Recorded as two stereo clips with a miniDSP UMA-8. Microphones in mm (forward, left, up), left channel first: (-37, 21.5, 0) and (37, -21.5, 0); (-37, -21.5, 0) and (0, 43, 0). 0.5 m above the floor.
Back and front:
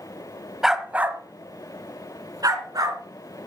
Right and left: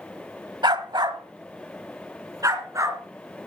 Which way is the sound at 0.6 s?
55° left.